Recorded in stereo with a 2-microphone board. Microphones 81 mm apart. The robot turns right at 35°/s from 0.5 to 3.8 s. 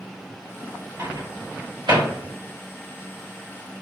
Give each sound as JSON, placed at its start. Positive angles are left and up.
{"t": 1.0, "sound": "a microwave", "side_deg": -45, "distance_m": 1.6}